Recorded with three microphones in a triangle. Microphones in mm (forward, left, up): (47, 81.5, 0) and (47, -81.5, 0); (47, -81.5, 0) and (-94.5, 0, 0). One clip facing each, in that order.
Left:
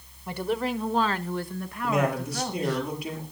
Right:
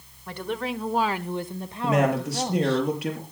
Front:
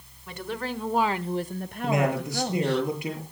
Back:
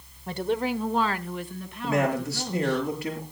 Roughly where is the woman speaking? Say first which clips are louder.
Left 2 dB, back 6 dB; behind.